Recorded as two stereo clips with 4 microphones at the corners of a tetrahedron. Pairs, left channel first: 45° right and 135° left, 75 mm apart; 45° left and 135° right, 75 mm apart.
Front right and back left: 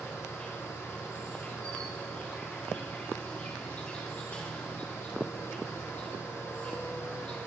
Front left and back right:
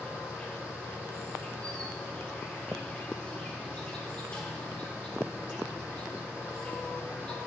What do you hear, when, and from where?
0.0 s an insect: 5° right, 2 m